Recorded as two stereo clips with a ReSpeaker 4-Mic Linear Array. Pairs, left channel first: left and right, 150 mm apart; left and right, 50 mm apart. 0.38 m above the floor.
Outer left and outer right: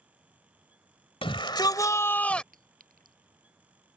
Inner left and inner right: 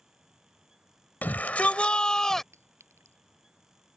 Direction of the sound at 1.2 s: 35° left (ahead or behind).